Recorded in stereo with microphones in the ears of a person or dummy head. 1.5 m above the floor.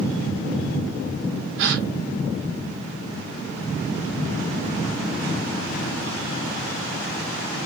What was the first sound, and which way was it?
A gasp, 55° right (ahead or behind).